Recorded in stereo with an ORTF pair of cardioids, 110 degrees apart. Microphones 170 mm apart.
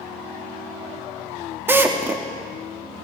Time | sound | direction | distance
1.7 | a drill | 15° right | 2 m